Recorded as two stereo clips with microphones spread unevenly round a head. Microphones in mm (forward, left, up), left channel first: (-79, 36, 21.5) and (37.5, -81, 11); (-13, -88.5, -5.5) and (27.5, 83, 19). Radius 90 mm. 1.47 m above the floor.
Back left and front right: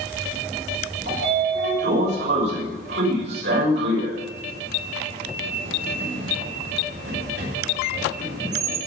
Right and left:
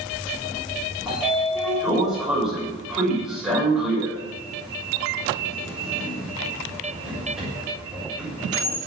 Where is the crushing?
I don't hear crushing.